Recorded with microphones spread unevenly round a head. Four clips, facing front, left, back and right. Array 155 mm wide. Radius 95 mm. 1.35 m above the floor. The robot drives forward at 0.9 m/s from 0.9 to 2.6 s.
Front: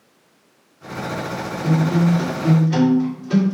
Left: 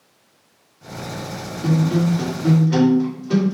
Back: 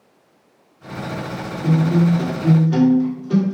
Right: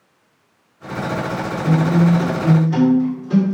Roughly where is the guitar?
Behind left.